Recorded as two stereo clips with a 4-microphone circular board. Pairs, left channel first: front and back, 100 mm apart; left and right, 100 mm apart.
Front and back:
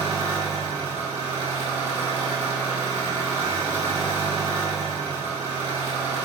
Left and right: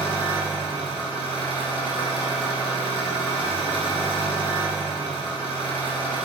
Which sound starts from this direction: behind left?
An engine running, at 0.0 s.